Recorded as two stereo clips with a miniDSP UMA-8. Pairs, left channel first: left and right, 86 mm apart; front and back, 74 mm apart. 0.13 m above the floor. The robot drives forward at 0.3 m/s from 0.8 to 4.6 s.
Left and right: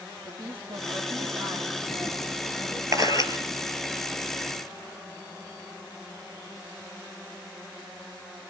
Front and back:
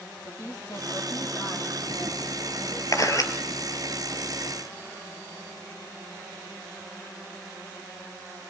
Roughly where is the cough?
No cough in this recording.